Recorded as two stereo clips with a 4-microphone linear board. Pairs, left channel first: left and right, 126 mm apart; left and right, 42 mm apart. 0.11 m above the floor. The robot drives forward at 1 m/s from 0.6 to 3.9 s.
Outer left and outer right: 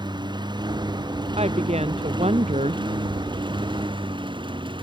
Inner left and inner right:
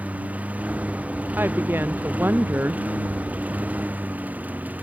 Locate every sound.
0.0 s a lawn mower: 35° right (ahead or behind); by 4.8 s 40° right (ahead or behind)
1.4 s a woman speaking: 55° right (ahead or behind); by 2.8 s 60° right (ahead or behind)